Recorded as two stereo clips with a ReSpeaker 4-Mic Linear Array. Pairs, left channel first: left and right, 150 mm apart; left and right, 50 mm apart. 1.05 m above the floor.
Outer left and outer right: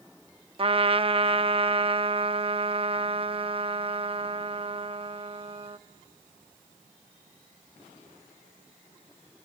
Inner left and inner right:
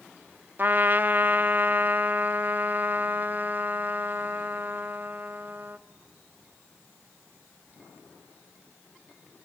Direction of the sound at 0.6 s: 40° right (ahead or behind).